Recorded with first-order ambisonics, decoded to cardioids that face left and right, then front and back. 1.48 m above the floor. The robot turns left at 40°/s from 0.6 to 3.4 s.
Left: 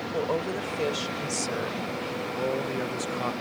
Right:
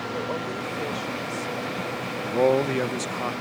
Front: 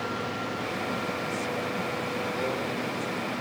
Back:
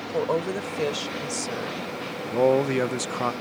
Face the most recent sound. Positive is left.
turn(degrees=180)